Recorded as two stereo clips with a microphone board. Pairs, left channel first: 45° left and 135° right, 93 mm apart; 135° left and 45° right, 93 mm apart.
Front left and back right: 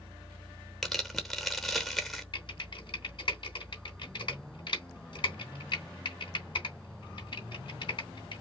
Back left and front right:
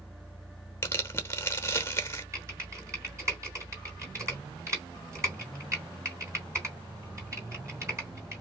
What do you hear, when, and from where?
0.8 s tearing paper: 135° left, 1.0 m
2.3 s typing on a keyboard: 10° left, 2.5 m